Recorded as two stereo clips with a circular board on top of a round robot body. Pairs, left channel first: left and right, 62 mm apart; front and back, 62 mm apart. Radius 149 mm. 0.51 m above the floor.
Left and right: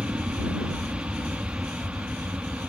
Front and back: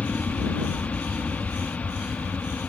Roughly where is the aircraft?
Ahead right.